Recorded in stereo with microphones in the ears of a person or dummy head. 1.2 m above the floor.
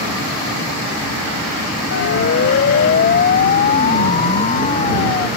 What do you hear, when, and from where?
1.9 s a siren: 55° left (ahead or behind); by 5.3 s 25° left (ahead or behind)